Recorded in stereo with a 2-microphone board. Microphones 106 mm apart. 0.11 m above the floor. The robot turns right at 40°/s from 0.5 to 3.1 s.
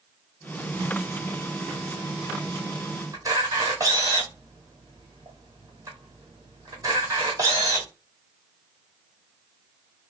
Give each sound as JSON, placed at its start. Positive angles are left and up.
{"t": 3.1, "sound": "a camera shutter", "side_deg": -35, "distance_m": 1.2}